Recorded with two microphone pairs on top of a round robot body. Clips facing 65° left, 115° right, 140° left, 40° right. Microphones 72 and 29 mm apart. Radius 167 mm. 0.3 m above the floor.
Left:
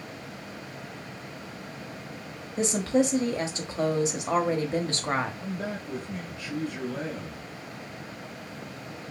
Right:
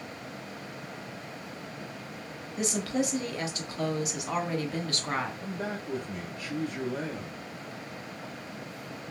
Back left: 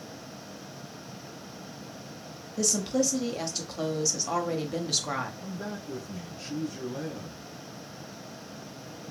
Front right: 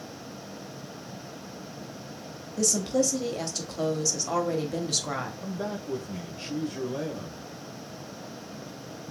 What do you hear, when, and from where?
2.6 s a woman speaking: 50° left, 1.1 m
5.4 s a man speaking: 60° right, 1.3 m